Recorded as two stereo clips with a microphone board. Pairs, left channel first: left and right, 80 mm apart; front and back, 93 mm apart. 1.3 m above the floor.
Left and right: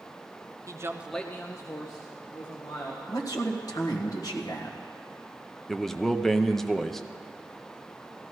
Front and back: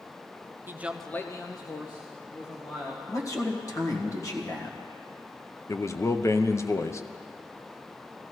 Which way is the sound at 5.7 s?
5° left.